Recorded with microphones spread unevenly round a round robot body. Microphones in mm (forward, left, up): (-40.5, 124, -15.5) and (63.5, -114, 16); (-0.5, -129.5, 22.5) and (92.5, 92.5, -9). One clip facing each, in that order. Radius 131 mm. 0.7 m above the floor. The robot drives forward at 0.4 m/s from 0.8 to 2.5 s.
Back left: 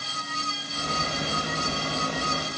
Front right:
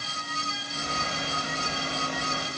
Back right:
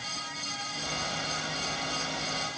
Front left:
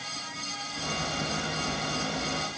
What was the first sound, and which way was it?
Only background noise.